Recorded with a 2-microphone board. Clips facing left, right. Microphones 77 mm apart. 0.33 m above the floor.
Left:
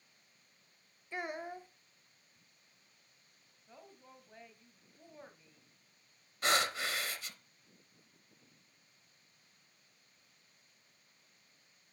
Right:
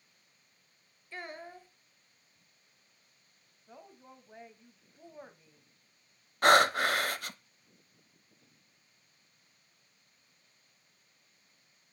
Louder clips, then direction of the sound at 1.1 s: Left 3 dB; 15° left (ahead or behind).